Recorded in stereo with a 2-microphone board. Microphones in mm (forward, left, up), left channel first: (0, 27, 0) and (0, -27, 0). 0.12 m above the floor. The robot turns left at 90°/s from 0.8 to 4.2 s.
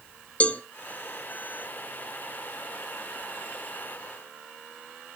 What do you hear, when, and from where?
0.4 s a cowbell: 25° left (ahead or behind), 0.6 m